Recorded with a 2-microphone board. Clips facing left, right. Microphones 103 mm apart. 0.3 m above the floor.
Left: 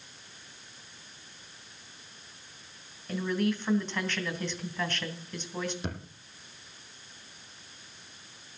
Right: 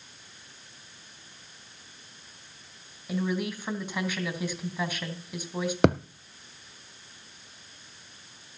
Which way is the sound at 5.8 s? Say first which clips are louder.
Right 17 dB; 75° right (ahead or behind).